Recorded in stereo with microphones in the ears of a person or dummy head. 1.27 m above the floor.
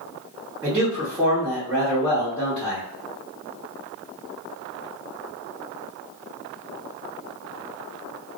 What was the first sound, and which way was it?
A man speaking, 10° right (ahead or behind).